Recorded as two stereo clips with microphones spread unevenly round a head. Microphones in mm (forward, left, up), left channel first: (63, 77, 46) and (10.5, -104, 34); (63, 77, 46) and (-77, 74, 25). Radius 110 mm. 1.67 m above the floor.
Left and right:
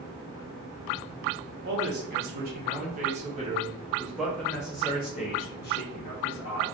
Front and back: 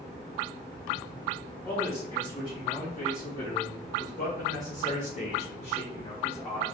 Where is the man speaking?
75° right, 1.7 m; by 6.7 s 50° left, 1.5 m.